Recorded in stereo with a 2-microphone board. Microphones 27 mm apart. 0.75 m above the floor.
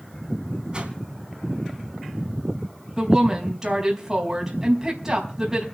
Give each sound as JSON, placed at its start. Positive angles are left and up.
{"t": 0.7, "sound": "a whoosh", "side_deg": -35, "distance_m": 3.0}
{"t": 3.0, "sound": "a woman speaking", "side_deg": -20, "distance_m": 4.5}